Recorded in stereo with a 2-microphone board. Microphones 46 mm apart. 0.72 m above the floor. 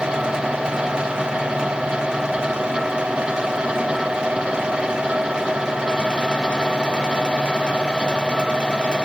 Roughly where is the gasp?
No gasp in this recording.